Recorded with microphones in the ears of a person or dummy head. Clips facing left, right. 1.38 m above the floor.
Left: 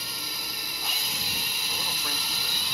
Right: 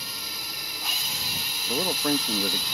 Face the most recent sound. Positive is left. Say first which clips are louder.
# right 15 dB
turn(degrees=-45)  # may be behind; listen again after turning